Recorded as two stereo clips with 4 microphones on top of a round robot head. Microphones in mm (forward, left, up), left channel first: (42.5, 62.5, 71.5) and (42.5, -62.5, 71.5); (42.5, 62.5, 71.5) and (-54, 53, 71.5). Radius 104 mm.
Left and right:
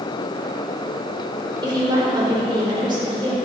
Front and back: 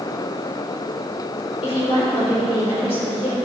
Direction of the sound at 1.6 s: 35° right.